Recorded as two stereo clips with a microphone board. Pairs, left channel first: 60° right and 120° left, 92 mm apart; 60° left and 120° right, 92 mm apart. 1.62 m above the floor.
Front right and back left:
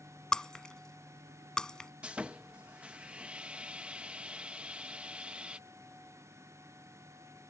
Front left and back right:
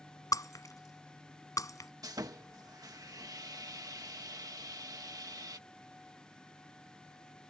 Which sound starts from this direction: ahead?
Breaking glass, at 0.3 s.